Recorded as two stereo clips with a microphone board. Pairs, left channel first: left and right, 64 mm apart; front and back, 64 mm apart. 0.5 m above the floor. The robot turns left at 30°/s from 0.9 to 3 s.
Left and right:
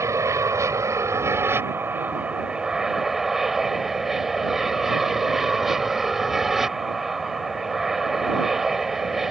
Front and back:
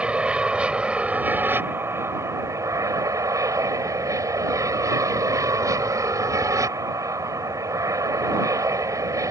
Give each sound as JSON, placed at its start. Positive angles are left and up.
{"t": 0.0, "sound": "an aircraft", "azimuth_deg": -110}